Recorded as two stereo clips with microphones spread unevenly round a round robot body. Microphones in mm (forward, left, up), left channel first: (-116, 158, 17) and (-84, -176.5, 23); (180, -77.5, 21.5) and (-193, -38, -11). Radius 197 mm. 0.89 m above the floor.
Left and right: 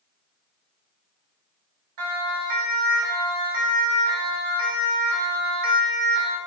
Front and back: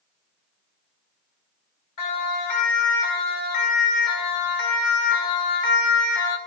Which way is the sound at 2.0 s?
45° right.